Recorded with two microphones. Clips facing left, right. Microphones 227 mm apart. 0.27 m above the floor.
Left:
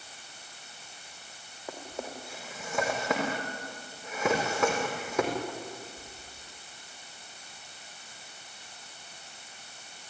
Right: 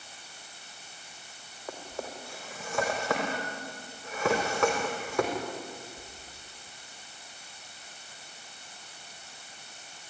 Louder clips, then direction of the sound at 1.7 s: Even; 20° left (ahead or behind).